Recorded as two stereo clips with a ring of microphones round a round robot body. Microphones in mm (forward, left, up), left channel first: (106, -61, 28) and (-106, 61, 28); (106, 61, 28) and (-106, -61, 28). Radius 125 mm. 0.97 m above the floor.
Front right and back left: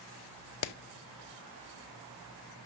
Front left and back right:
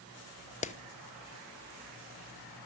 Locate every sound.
0.6 s a clap: 35° right, 0.9 m